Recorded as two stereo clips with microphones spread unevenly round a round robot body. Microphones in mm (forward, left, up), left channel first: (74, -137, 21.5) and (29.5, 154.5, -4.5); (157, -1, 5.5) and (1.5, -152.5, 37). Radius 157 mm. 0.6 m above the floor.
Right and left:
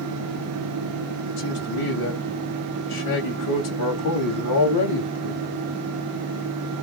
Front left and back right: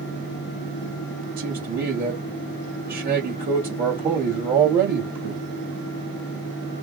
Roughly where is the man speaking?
Right.